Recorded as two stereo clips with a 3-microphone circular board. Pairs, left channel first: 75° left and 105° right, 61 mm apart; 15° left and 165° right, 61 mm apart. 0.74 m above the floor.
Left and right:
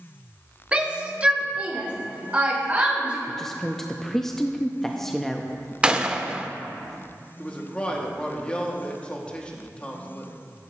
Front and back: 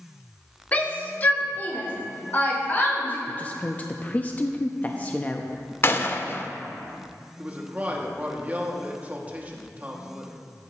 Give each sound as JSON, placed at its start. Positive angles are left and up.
{"t": 0.7, "sound": "a shout", "azimuth_deg": -40, "distance_m": 1.4}
{"t": 3.3, "sound": "a woman speaking", "azimuth_deg": 0, "distance_m": 0.6}
{"t": 5.8, "sound": "a gunshot", "azimuth_deg": -30, "distance_m": 0.7}
{"t": 7.4, "sound": "a man speaking", "azimuth_deg": 140, "distance_m": 1.4}